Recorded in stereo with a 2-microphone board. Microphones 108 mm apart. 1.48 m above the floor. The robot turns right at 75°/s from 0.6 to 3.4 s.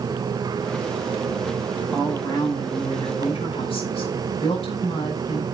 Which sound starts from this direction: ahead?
A woman speaking, at 1.9 s.